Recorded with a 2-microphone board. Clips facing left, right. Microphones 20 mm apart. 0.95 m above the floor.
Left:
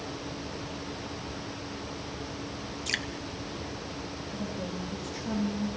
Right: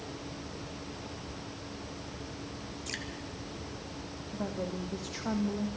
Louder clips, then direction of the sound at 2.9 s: Left 8 dB; 30° left (ahead or behind).